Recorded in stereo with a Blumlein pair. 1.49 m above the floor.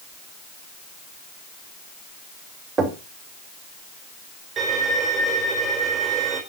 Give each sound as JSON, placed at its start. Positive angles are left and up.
{"t": 2.8, "sound": "knocking", "azimuth_deg": -15, "distance_m": 3.0}
{"t": 4.6, "sound": "a violin", "azimuth_deg": -15, "distance_m": 4.5}